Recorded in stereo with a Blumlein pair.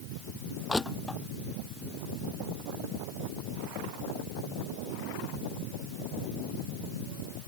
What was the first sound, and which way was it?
Crushing, 5° left.